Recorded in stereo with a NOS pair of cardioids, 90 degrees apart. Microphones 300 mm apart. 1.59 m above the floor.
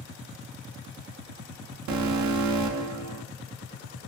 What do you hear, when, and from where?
1.9 s an alarm: 70° right, 1.0 m